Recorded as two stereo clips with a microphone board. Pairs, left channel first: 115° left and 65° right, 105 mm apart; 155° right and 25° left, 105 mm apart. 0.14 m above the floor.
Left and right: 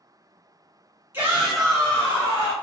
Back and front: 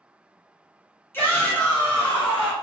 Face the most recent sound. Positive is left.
turn(degrees=130)